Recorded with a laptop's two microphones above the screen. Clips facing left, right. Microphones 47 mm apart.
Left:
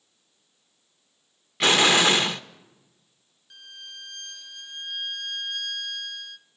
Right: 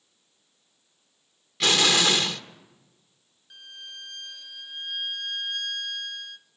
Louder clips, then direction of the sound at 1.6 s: Left 3 dB; 30° left (ahead or behind).